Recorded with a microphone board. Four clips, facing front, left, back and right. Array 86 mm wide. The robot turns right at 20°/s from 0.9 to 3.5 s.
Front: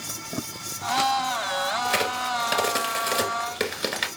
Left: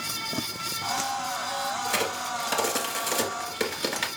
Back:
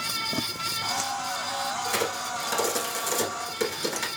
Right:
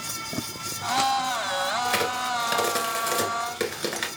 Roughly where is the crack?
Ahead right.